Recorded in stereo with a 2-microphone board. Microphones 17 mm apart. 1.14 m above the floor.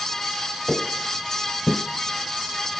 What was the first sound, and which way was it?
Footsteps, 15° left (ahead or behind).